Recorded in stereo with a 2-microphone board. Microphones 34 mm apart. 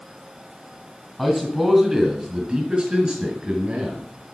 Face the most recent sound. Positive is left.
turn(degrees=-40)  # may be behind; listen again after turning